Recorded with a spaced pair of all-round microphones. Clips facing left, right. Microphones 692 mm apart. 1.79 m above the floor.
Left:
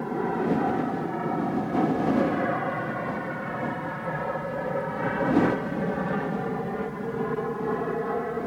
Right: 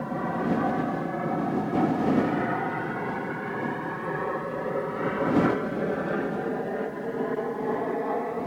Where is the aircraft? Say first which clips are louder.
Left 2 dB; 10° right (ahead or behind); by 8.5 s 45° left (ahead or behind).